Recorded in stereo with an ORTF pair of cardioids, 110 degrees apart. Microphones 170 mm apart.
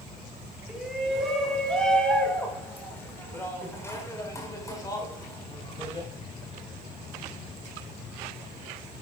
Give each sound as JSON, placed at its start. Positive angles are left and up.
{"t": 0.7, "sound": "a shout", "azimuth_deg": -5, "distance_m": 4.0}